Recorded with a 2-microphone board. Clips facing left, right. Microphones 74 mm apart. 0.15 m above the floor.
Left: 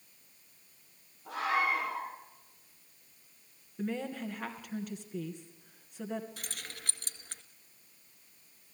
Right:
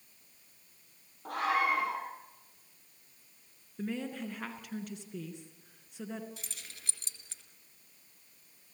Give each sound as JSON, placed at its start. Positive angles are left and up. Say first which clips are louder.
{"t": 1.2, "sound": "a scream", "louder": "right 1 dB", "side_deg": -55, "distance_m": 6.0}
{"t": 3.8, "sound": "a woman speaking", "louder": "left 1 dB", "side_deg": 0, "distance_m": 2.5}
{"t": 6.4, "sound": "keys jangling", "louder": "left 6 dB", "side_deg": 55, "distance_m": 1.6}